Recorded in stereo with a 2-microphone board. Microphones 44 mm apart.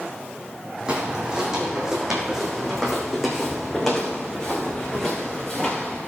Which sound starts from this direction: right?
Footsteps, at 0.9 s.